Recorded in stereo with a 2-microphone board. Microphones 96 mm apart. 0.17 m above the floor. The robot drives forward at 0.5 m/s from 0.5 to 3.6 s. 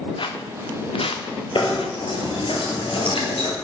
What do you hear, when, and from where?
0.2 s footsteps: 60° left (ahead or behind), 1.7 m; by 2.5 s 85° left, 2 m
1.6 s knocking: 65° left (ahead or behind), 2.5 m; by 3.5 s 70° left (ahead or behind), 2.5 m